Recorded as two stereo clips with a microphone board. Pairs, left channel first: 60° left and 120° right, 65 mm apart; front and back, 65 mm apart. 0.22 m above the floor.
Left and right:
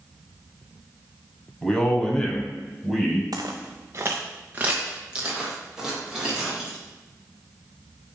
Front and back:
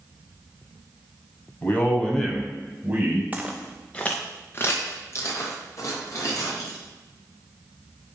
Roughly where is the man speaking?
Ahead.